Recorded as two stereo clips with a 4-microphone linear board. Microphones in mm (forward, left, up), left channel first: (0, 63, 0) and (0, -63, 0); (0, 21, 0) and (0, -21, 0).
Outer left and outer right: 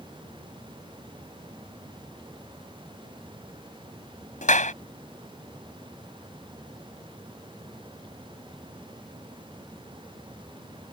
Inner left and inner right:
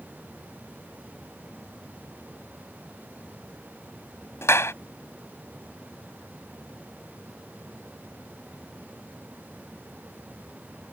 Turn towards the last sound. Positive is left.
turn(degrees=80)